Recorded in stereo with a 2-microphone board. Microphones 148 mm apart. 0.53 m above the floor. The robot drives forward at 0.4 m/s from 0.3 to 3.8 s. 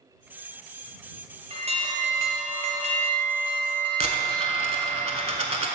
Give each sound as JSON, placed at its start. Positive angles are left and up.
{"t": 1.5, "sound": "an alarm", "side_deg": -40, "distance_m": 0.8}
{"t": 4.0, "sound": "a dropped coin", "side_deg": -45, "distance_m": 0.7}